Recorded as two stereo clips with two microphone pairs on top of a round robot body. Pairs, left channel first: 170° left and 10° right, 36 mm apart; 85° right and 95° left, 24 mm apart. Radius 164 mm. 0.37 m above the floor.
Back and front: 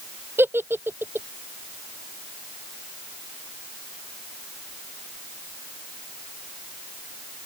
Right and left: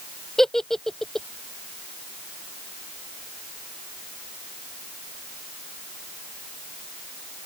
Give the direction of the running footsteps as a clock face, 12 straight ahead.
I don't hear running footsteps.